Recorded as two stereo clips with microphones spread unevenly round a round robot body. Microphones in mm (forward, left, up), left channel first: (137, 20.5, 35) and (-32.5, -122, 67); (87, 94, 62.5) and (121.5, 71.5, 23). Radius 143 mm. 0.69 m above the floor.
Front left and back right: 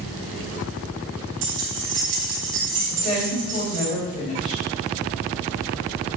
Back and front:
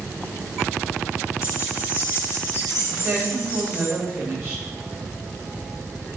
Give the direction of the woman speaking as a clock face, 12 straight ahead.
1 o'clock.